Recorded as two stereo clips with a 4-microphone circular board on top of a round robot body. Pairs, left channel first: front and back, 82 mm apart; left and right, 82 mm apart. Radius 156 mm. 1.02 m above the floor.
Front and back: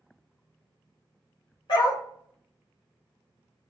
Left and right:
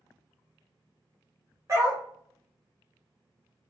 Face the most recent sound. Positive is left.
turn(degrees=-35)